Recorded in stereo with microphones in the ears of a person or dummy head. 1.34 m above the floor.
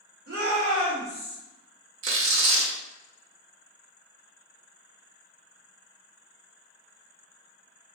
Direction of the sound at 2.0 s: 65° right (ahead or behind).